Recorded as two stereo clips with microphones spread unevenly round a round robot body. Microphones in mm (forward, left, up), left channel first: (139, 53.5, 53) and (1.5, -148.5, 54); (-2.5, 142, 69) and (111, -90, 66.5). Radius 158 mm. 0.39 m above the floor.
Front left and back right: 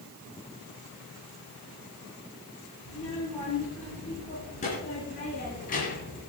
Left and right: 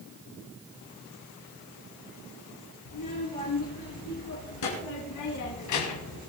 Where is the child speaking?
125° left, 5 m; by 6.2 s 115° left, 1.3 m.